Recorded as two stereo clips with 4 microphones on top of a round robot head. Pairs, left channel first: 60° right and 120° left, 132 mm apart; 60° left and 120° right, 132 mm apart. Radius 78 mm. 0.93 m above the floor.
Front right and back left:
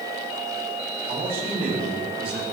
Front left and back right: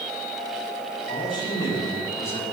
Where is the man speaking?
115° left, 6.5 m; by 2.4 s 130° left, 5.5 m.